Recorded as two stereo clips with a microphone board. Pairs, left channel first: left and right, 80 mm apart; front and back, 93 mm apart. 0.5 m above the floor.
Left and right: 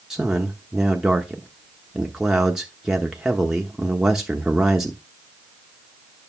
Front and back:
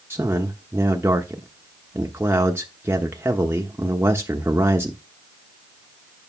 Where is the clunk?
I don't hear a clunk.